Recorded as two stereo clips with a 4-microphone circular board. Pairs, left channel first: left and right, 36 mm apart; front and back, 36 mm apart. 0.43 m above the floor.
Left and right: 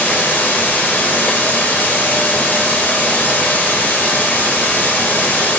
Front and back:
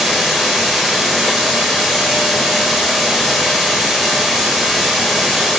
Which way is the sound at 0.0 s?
90° left.